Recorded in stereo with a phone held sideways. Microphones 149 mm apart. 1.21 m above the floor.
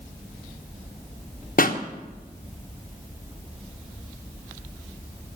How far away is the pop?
About 1.2 m.